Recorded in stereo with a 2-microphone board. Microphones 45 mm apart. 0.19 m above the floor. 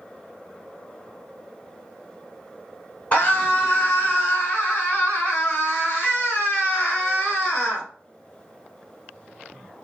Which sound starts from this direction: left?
A scream, at 3.1 s.